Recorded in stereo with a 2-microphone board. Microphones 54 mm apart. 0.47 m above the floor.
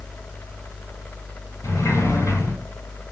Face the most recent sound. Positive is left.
turn(degrees=65)  # may be behind; listen again after turning